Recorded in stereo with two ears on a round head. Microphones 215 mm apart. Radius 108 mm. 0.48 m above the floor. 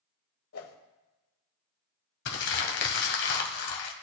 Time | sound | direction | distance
0.5 | a whoosh | 65° left (ahead or behind) | 1.3 m
2.2 | crumpling | 50° left (ahead or behind) | 1.4 m